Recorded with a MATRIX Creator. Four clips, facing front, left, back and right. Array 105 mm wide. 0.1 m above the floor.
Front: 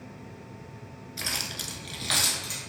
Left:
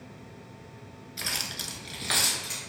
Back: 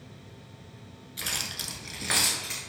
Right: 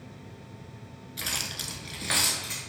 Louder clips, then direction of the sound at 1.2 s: Even, front 1 dB; 35° left.